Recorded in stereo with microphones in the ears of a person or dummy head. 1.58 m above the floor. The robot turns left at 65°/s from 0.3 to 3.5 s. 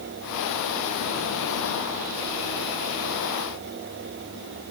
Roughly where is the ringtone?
I don't hear a ringtone.